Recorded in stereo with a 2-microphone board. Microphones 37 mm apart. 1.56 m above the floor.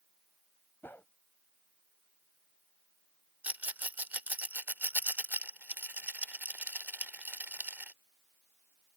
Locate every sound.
0.8 s a whoosh: 65° left (ahead or behind)
3.4 s a rattle: 50° right (ahead or behind)